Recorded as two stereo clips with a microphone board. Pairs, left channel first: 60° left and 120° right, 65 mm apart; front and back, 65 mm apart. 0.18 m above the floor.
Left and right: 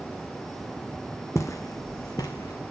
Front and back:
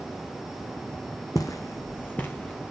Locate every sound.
1.4 s footsteps: 20° left, 0.8 m; by 2.7 s 75° left, 1.2 m